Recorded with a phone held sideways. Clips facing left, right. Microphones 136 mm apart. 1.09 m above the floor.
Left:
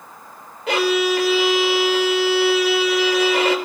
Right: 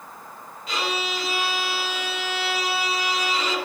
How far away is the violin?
About 4 m.